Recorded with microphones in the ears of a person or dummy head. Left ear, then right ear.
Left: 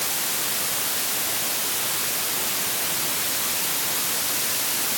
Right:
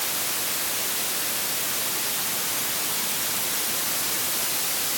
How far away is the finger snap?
I don't hear a finger snap.